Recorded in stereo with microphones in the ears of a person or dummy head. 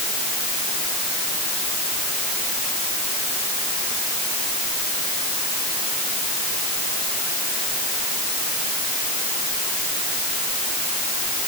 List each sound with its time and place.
Only background noise.